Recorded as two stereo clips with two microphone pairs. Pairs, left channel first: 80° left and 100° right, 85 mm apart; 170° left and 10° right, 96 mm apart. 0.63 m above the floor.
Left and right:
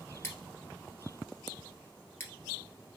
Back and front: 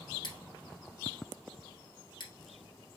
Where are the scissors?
140° left, 1.8 m.